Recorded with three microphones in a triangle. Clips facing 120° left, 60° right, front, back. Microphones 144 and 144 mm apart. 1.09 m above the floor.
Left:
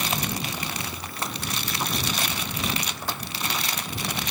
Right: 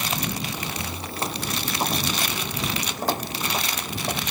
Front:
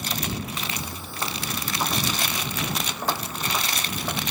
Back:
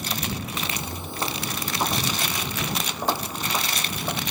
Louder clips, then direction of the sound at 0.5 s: Right 1 dB, back 2 dB; 120° right.